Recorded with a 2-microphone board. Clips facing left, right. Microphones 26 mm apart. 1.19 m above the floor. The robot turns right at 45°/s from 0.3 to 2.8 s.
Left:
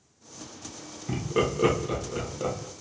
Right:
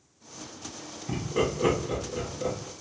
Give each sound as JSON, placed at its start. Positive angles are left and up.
{"t": 1.1, "sound": "laughter", "side_deg": 10, "distance_m": 1.1}